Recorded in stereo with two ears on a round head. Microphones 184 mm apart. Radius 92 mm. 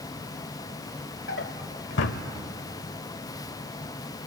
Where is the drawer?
60° left (ahead or behind), 1.1 m.